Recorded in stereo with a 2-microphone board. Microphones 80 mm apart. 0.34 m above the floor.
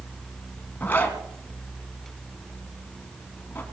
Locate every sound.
0.8 s a zipper: 25° left (ahead or behind), 2.5 m